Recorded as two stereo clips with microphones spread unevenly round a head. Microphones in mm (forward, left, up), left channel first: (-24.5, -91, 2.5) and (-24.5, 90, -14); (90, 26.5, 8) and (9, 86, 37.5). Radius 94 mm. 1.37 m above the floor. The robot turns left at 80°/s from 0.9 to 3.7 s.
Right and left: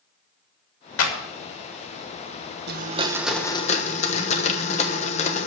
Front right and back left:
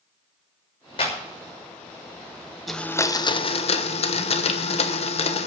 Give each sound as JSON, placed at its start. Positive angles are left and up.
{"t": 1.0, "sound": "a clap", "azimuth_deg": -90, "distance_m": 3.0}
{"t": 2.7, "sound": "a blender", "azimuth_deg": 50, "distance_m": 1.1}